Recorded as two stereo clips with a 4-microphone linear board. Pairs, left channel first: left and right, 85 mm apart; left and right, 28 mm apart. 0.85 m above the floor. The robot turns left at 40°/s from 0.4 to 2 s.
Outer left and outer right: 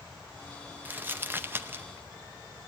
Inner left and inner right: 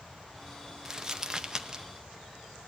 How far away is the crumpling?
About 0.8 m.